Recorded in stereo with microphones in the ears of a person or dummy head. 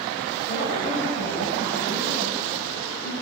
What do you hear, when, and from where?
0.5 s a woman speaking: 45° left (ahead or behind), 8.5 m